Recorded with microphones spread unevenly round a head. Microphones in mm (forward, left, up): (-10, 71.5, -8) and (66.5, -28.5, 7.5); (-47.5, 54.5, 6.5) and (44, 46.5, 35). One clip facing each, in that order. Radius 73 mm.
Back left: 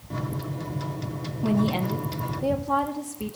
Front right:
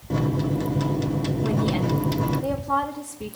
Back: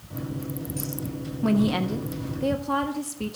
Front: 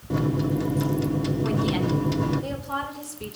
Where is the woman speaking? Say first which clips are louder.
Back left 3 dB, back 6 dB; 165° right, 1.4 m.